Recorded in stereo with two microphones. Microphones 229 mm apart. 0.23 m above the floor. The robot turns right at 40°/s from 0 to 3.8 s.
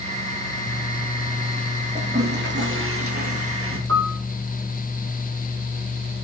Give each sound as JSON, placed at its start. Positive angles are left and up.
{"t": 1.9, "sound": "a toilet flushing", "azimuth_deg": -145, "distance_m": 4.5}
{"t": 3.9, "sound": "a piano", "side_deg": -70, "distance_m": 3.5}